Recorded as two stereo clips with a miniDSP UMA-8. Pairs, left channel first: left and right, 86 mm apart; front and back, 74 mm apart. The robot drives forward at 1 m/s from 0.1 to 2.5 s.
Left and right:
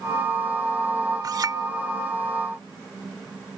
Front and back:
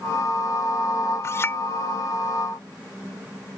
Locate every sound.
1.2 s a clink: 50° right; by 1.6 s 55° right